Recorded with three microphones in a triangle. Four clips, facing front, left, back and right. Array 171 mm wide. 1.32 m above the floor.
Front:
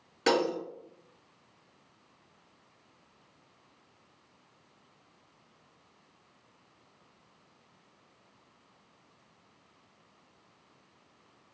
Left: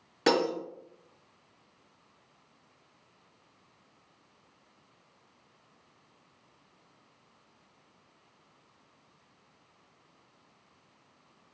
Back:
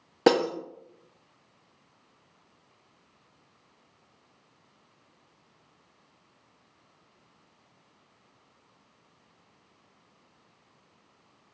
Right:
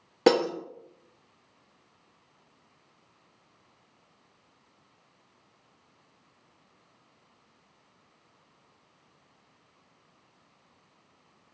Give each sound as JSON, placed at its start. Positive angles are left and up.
{"t": 0.3, "sound": "breaking glass", "azimuth_deg": -150, "distance_m": 1.2}